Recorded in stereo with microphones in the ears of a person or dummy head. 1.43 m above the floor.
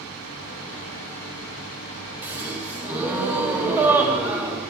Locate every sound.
2.2 s a gasp: 10° right (ahead or behind), 2 m